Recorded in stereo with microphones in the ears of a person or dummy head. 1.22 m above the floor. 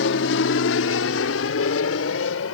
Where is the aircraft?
65° left (ahead or behind); by 2.5 s 75° left (ahead or behind).